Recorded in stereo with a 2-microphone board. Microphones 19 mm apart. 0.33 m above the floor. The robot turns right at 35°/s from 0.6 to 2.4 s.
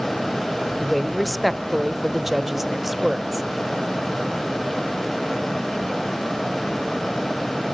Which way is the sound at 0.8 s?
10° left (ahead or behind).